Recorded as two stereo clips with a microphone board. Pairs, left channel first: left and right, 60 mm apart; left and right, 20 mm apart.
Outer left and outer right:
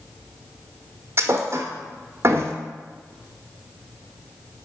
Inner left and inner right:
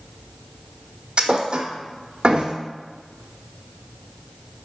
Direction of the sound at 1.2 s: 50° right (ahead or behind).